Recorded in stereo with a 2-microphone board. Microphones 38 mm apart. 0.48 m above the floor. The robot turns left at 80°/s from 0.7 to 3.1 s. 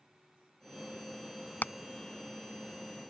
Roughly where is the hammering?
Left.